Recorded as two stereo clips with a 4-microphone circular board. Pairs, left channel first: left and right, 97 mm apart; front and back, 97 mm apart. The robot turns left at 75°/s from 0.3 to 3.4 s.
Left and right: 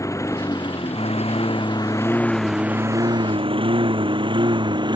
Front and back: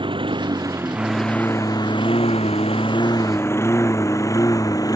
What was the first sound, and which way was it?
A lawn mower, 145° left.